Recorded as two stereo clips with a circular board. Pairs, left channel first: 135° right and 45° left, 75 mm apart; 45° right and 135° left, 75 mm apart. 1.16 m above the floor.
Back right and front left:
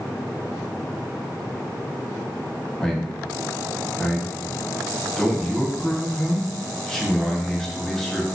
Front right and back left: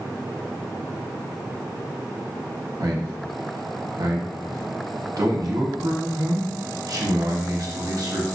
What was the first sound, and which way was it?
A man speaking, 145° left.